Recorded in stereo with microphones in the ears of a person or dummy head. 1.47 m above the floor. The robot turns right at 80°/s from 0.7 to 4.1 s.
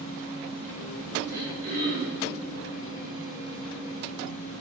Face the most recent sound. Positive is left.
turn(degrees=60)